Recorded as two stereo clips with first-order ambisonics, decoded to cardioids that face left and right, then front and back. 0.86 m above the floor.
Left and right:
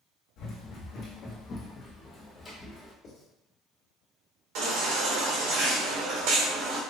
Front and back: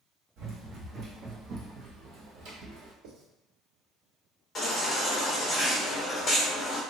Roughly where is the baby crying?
Right.